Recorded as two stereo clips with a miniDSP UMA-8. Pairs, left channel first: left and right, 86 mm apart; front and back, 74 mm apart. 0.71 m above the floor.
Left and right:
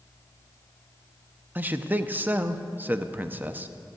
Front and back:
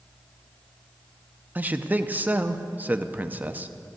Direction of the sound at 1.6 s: 135° right.